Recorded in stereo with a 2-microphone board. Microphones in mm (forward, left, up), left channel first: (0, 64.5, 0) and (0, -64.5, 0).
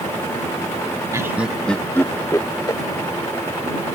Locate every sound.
1.1 s laughter: 25° right (ahead or behind); by 2.8 s 30° left (ahead or behind)